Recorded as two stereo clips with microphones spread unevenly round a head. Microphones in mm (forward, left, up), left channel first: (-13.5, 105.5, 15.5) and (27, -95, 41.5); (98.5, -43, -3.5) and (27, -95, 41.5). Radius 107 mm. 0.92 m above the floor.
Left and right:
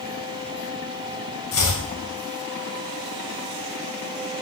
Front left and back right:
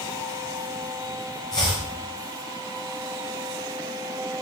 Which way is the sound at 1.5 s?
90° left.